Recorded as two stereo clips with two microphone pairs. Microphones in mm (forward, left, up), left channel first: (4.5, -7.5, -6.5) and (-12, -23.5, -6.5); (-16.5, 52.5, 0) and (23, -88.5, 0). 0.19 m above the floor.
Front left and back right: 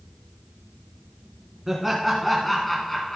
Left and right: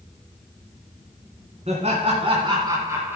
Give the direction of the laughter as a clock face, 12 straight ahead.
2 o'clock.